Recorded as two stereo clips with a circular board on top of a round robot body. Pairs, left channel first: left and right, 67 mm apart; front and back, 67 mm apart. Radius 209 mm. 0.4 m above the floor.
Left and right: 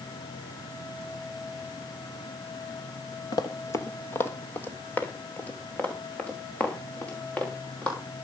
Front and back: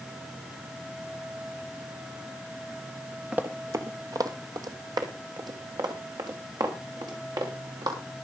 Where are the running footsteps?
105° left, 0.5 m; by 8.0 s 160° left, 5.5 m.